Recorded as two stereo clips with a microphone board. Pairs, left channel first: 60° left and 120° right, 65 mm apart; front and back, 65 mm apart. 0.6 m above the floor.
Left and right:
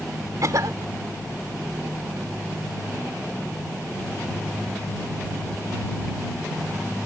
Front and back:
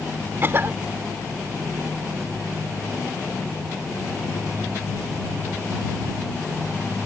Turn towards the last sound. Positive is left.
turn(degrees=-130)